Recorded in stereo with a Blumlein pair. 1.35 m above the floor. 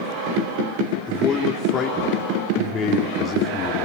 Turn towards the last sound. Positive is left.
turn(degrees=20)